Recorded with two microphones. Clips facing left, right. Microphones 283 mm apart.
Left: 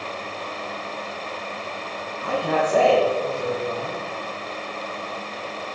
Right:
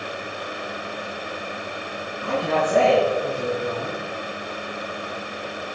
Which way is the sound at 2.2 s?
25° right (ahead or behind).